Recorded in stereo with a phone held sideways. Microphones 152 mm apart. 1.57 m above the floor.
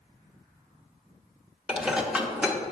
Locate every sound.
1.7 s dishes clattering: 5° right (ahead or behind), 0.8 m